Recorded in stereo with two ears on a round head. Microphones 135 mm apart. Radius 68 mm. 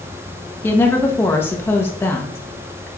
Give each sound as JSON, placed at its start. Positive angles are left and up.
{"t": 0.6, "sound": "a woman speaking", "side_deg": 15, "distance_m": 0.9}